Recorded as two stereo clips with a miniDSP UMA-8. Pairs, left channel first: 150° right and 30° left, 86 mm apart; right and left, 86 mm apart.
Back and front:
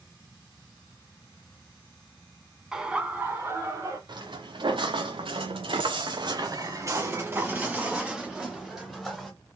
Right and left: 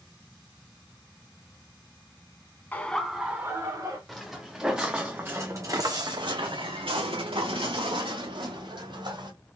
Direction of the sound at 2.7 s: 50° right.